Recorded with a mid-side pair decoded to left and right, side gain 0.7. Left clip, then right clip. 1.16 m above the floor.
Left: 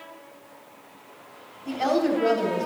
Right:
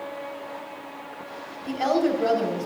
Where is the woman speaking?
5° right, 2 m.